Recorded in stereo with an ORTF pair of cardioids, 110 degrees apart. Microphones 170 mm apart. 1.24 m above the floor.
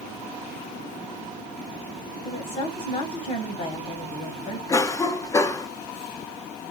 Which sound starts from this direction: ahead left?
A woman speaking, at 2.2 s.